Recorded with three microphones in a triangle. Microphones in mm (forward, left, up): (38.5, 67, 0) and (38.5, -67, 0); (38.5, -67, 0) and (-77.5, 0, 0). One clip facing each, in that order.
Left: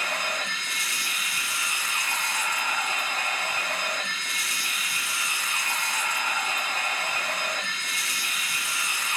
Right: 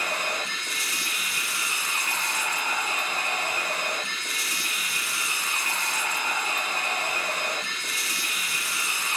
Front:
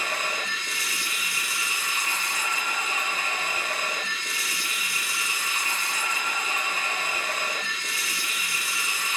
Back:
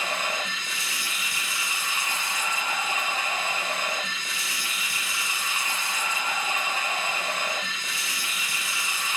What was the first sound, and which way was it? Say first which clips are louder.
Running water: right 1 dB, back 1 dB; 145° right.